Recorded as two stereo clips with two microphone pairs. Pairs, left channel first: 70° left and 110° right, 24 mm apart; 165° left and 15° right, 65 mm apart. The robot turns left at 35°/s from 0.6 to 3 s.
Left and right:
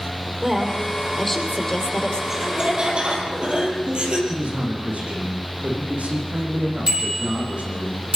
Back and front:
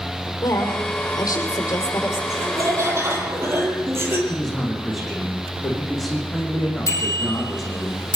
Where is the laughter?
35° right, 6 m; by 4.2 s 60° right, 6 m.